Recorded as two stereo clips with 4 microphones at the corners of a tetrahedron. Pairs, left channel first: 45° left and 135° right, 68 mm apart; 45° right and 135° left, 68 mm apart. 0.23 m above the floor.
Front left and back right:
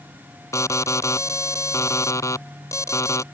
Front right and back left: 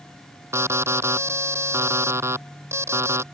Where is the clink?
I don't hear a clink.